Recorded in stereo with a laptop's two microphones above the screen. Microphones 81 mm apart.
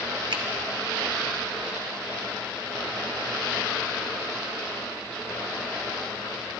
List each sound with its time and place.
0.3 s a finger snap: 85° right, 1.4 m